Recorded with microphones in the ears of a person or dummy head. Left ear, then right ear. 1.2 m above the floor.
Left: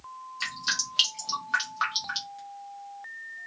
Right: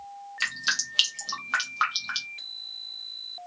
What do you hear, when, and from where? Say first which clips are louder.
0.4 s dripping: right 2 dB; 25° right (ahead or behind), 0.6 m